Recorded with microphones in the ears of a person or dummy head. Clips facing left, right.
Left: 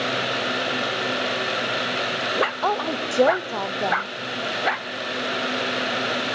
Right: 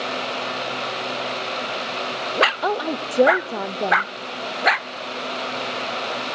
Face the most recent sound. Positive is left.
turn(degrees=-15)  # may be behind; listen again after turning